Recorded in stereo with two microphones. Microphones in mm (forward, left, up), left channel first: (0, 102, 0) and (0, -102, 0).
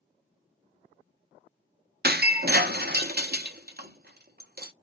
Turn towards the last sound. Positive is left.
turn(degrees=-50)  # may be behind; listen again after turning